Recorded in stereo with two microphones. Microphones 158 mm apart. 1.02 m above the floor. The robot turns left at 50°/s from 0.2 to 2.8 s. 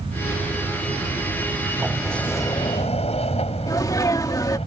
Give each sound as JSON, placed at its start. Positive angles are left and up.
{"t": 1.8, "sound": "a sliding door", "azimuth_deg": -170}
{"t": 3.7, "sound": "a sneeze", "side_deg": 20}